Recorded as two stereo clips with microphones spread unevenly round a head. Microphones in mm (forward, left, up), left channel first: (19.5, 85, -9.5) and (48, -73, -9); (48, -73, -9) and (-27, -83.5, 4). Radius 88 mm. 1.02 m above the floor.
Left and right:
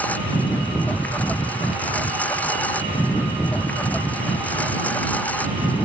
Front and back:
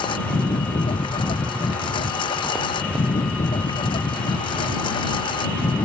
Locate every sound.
0.0 s a lawn mower: 20° left